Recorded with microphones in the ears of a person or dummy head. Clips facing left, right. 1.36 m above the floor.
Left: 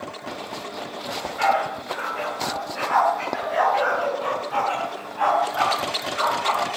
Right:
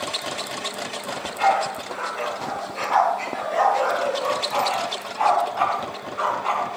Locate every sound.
1.1 s a dog barking: 15° left (ahead or behind), 9 m; by 6.7 s 25° left (ahead or behind), 6.5 m